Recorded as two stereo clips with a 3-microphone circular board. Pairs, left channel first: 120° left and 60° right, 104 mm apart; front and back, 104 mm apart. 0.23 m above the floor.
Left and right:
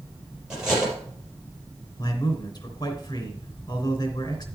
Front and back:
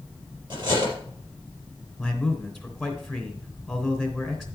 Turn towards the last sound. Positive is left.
turn(degrees=90)